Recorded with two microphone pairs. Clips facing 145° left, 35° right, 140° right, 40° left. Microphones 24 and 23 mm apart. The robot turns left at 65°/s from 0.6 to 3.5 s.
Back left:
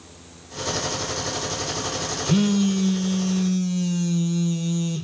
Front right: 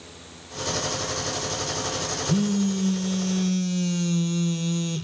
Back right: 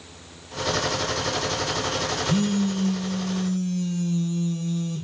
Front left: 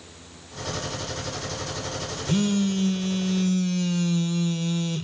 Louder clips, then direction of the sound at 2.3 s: Back left 4 dB, front left 3 dB; 105° left.